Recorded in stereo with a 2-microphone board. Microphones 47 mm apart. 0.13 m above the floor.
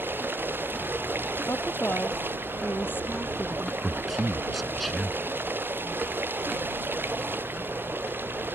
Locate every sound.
0.0 s running water: 45° right (ahead or behind)
1.5 s a woman speaking: 45° left (ahead or behind)
3.8 s a man speaking: 5° left (ahead or behind)